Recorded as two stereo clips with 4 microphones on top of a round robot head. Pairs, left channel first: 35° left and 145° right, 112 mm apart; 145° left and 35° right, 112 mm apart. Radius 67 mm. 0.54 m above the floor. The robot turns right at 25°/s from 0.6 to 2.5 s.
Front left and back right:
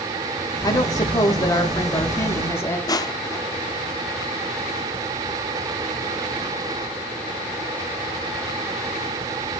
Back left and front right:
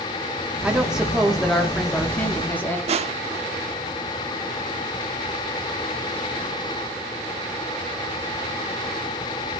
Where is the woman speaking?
35° left, 1.2 m; by 2.8 s 85° left, 1.2 m.